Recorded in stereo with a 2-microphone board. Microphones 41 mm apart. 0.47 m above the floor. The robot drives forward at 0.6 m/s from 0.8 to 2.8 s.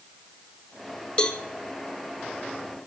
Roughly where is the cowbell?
Left.